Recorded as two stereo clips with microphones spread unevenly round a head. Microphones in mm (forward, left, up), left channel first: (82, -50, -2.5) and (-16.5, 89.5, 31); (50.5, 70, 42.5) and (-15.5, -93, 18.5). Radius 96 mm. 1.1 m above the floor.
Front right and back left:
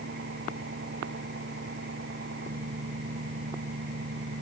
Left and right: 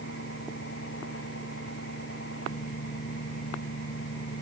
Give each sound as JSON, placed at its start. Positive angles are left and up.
{"t": 0.0, "sound": "an engine running", "azimuth_deg": 100}